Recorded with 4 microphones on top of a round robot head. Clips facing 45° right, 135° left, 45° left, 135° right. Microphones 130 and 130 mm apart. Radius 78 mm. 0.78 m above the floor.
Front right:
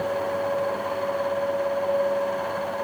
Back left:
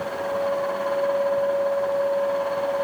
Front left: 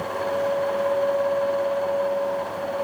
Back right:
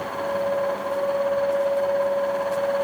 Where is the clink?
I don't hear a clink.